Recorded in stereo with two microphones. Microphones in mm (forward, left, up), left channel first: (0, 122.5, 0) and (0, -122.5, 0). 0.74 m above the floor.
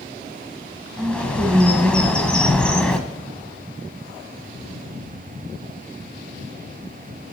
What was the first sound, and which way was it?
A bird, 5° left (ahead or behind).